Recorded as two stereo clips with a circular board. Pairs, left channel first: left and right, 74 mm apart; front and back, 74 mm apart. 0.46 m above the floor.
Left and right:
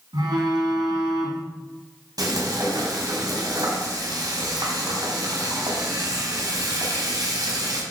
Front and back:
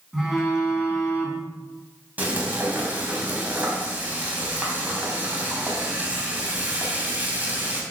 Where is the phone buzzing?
95° right, 3 m.